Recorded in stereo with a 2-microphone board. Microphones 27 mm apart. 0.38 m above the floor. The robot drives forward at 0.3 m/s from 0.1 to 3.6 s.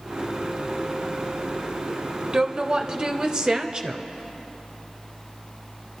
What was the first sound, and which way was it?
A woman speaking, 25° right (ahead or behind).